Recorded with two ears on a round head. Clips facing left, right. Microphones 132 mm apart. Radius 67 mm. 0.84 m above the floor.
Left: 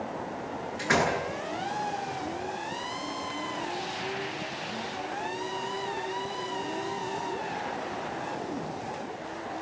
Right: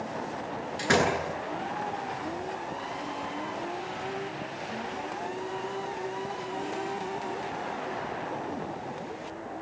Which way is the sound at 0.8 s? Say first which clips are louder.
Right 1 dB; 40° right (ahead or behind).